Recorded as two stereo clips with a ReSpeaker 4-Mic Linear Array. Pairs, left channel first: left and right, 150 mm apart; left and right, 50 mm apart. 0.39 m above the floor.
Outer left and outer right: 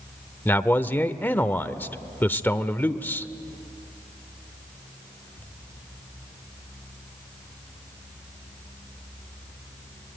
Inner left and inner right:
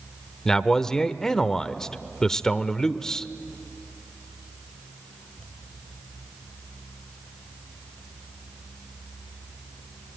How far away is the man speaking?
About 0.8 m.